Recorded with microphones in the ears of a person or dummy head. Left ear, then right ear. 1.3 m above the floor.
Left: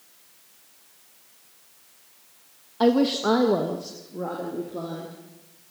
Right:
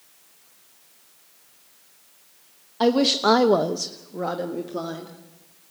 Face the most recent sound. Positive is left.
turn(degrees=-60)  # may be behind; listen again after turning